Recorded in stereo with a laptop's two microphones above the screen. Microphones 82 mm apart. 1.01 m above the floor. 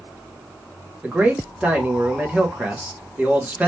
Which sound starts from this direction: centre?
A man speaking, at 1.0 s.